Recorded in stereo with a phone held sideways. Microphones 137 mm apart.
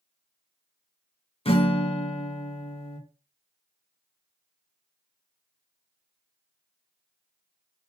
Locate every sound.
1.4 s a guitar: 45° left (ahead or behind), 1.3 m